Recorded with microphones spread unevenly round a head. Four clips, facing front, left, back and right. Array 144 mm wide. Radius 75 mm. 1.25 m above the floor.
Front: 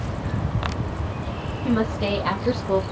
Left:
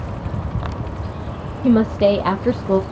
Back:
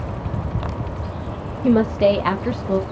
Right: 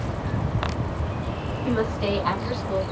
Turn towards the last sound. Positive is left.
turn(degrees=70)